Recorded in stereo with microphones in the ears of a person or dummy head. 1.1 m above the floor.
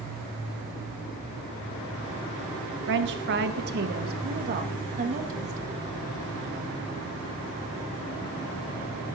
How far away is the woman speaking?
About 1.2 m.